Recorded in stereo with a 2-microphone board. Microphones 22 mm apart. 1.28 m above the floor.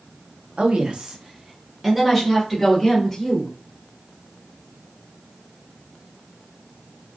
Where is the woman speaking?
60° right (ahead or behind), 0.7 m; by 3.5 s 10° left (ahead or behind), 1.7 m.